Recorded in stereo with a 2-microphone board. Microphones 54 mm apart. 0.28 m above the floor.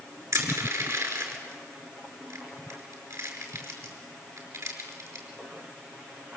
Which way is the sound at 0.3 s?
70° right (ahead or behind).